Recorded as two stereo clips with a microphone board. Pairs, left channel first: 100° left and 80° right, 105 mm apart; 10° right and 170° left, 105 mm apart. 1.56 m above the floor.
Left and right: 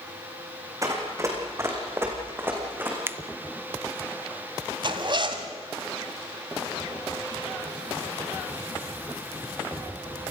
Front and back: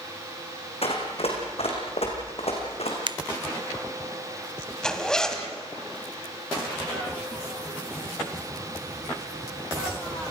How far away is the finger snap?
About 0.7 m.